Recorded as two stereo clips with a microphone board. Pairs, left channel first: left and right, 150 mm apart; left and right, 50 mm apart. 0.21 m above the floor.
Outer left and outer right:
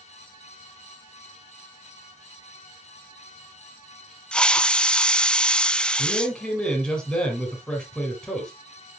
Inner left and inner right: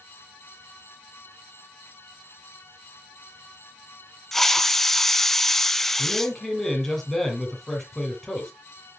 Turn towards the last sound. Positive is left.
turn(degrees=5)  # may be behind; listen again after turning